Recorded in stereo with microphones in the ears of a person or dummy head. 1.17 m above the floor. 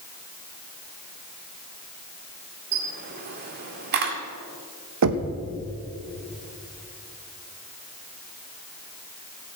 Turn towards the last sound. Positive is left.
turn(degrees=-80)